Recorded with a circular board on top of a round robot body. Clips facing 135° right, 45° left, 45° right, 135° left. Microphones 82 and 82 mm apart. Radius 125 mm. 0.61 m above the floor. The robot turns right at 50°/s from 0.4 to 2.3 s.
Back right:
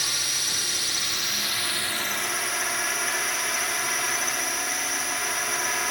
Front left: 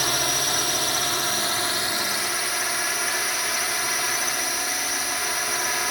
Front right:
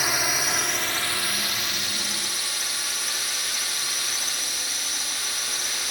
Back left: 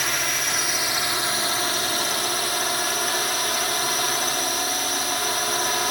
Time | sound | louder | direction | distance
0.0 | a drone | front left 8 dB, even | 35° left | ?